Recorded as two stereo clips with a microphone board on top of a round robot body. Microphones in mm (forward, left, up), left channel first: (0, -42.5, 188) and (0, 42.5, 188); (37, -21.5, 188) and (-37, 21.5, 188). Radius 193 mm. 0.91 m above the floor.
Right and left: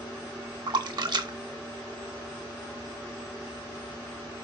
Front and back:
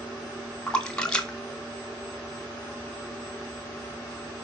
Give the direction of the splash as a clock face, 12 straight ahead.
10 o'clock.